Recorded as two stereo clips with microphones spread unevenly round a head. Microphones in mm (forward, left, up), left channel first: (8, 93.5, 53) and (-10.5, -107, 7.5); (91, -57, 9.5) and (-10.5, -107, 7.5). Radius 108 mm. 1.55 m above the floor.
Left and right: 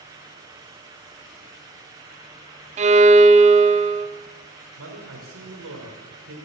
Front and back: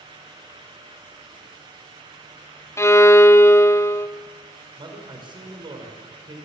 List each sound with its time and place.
2.8 s a violin: 40° right, 1.0 m
4.8 s a man speaking: 110° right, 4.5 m